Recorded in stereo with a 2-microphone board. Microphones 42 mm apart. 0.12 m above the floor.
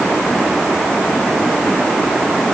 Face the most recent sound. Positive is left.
No sound to turn to.